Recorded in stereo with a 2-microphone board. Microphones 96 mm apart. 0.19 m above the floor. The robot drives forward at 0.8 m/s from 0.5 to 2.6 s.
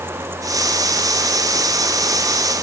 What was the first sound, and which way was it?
Only background noise.